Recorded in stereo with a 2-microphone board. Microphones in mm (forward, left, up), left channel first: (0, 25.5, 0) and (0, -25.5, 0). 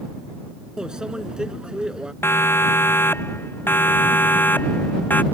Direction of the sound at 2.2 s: 50° left (ahead or behind).